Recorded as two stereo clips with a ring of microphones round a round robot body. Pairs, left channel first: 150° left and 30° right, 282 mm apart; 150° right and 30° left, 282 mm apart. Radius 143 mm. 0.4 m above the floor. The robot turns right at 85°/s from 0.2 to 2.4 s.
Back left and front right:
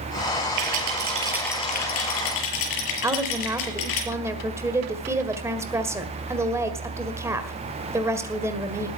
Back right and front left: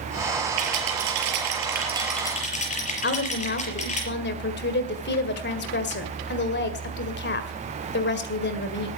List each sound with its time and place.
0.6 s a rattle: 10° right, 5 m; by 4.0 s 145° left, 5 m
3.0 s a woman speaking: 110° right, 1.8 m